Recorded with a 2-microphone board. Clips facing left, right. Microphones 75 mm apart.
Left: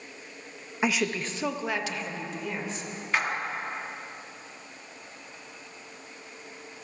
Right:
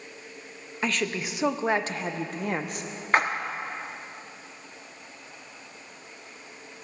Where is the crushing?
I don't hear crushing.